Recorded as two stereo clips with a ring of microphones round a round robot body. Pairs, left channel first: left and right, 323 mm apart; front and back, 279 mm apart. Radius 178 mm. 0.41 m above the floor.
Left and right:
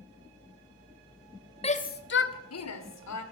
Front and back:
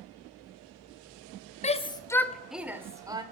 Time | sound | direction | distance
1.6 | a shout | 35° left | 1.3 m